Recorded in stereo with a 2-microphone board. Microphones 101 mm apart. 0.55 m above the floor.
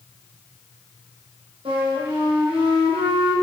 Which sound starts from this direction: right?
A flute, at 1.6 s.